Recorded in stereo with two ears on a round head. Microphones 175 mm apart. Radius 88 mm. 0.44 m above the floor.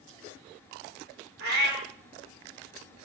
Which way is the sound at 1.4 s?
50° right (ahead or behind).